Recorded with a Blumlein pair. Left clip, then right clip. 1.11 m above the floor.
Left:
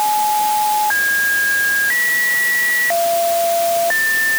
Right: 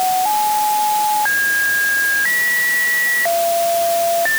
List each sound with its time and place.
Only background noise.